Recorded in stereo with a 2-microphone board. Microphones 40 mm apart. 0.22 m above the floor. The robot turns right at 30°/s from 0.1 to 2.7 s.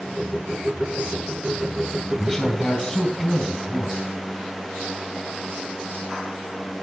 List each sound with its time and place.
2.2 s a man speaking: centre (ahead or behind), 1.7 m; by 4.0 s 10° left (ahead or behind), 1.7 m